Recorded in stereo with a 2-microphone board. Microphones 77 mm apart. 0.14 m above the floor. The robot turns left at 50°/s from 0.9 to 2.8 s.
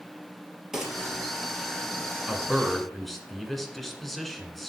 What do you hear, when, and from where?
0.7 s a gunshot: 5° right (ahead or behind), 3 m; by 1.0 s centre (ahead or behind), 3 m
2.3 s a man speaking: 10° right (ahead or behind), 1.8 m; by 4.7 s 5° left (ahead or behind), 1.8 m